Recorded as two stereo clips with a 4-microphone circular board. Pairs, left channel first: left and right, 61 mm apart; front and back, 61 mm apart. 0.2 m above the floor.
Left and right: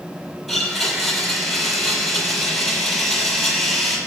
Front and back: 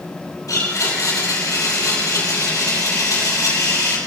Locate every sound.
0.5 s a blender: straight ahead, 6.5 m